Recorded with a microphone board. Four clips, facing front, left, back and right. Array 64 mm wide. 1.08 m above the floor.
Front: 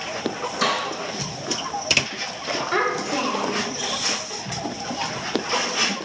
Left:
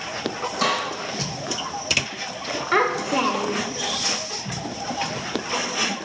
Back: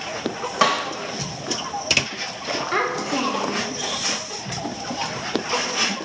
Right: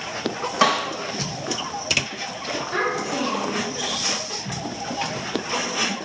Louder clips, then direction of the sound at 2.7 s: Left 5 dB, even; 100° left.